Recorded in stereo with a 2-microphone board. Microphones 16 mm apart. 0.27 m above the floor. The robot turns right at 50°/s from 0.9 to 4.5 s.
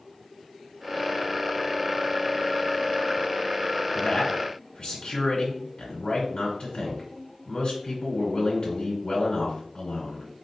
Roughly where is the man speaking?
Left.